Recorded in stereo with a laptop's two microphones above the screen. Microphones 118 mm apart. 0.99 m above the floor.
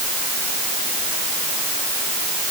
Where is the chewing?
No chewing in this recording.